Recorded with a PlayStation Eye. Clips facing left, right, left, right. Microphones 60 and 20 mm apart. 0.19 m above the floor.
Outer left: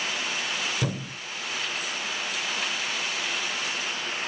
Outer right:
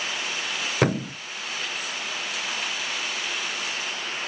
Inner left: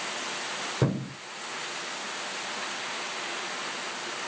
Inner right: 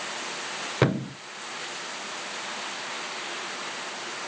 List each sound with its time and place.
0.8 s a thud: 50° right (ahead or behind), 0.8 m